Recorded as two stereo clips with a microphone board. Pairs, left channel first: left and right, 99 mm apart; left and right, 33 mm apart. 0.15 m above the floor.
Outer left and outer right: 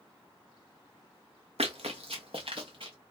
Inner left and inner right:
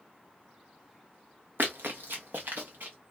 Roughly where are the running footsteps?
Right.